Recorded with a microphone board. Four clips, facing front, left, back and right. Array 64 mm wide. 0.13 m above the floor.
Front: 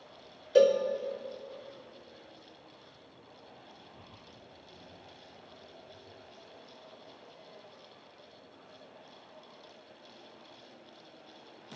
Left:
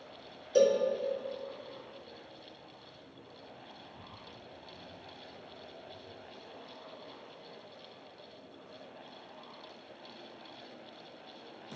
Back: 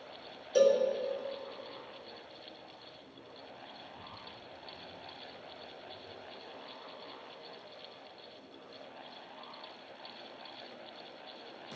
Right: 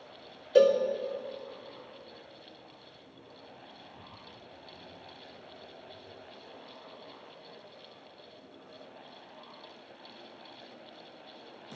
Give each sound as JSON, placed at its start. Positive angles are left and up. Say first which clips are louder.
{"t": 0.6, "sound": "a cowbell", "louder": "right 4 dB, front 3 dB", "azimuth_deg": -60, "distance_m": 1.0}